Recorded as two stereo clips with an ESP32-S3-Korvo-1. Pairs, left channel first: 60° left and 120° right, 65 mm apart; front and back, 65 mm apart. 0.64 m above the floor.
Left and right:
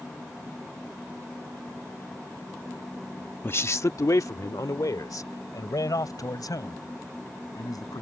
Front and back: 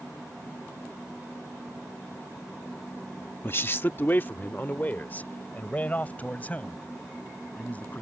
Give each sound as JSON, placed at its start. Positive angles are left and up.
{"t": 3.4, "sound": "a man speaking", "azimuth_deg": 30}